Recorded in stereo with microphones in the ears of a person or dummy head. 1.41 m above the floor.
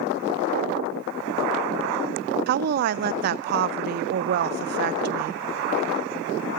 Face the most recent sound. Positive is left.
turn(degrees=-50)  # may be behind; listen again after turning